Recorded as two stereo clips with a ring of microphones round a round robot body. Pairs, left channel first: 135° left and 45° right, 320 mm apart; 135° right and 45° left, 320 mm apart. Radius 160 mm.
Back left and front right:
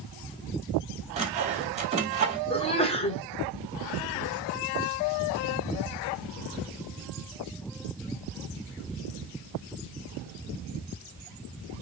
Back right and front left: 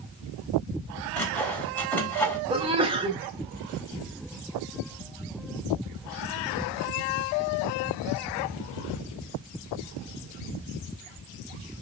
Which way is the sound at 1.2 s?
60° right.